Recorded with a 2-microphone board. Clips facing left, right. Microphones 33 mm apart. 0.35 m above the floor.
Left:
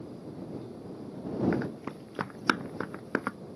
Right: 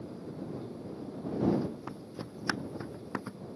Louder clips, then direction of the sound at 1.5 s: Even; 80° left.